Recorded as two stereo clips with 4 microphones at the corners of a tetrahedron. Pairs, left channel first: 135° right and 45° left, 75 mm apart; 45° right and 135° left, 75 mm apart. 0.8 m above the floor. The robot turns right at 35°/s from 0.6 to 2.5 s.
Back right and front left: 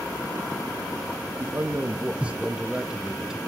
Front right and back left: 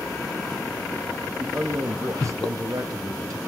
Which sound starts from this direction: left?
A man speaking, at 1.4 s.